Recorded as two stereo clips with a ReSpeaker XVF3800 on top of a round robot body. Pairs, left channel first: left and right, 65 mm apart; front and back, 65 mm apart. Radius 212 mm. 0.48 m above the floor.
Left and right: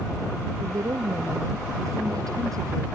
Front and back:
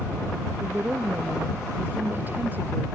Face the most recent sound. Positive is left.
turn(degrees=-120)